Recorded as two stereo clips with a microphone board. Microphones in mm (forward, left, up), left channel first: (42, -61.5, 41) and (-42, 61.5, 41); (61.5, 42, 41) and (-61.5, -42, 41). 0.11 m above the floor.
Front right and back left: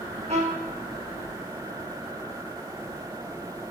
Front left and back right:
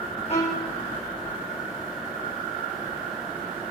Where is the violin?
80° left, 2.5 m.